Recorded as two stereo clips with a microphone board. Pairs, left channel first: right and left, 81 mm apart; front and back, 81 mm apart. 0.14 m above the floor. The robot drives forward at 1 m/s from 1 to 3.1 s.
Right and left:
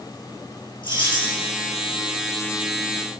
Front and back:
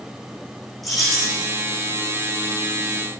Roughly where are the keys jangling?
Right.